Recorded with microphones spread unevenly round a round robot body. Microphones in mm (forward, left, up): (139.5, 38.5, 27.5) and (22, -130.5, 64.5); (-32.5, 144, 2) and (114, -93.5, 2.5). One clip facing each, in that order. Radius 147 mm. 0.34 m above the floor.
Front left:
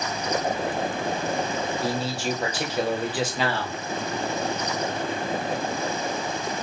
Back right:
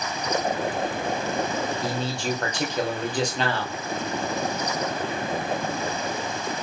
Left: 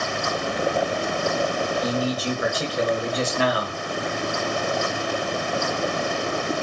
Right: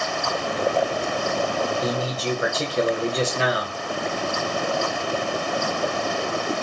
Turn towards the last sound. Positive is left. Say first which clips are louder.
# front left 1 dB, left 1 dB
turn(degrees=-10)